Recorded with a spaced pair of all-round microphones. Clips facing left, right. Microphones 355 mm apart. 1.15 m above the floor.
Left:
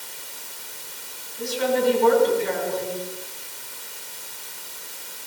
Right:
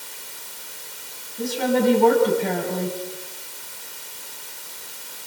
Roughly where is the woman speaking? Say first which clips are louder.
Right 2 dB; right.